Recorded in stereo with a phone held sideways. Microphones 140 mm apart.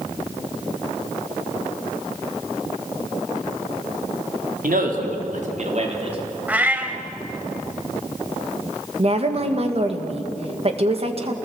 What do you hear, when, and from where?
4.6 s a man speaking: 85° right, 3.5 m; by 6.4 s 40° right (ahead or behind), 3.5 m
6.5 s a cat meowing: 10° right (ahead or behind), 1.9 m
9.0 s a woman speaking: 45° right (ahead or behind), 2 m